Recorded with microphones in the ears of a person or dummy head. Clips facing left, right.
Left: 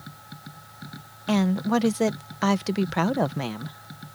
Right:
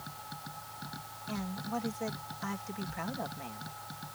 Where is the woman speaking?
80° left.